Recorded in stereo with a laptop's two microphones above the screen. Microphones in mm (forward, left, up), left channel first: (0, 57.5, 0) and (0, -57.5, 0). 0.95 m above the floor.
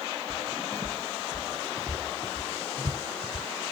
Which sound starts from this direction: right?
Footsteps, at 0.3 s.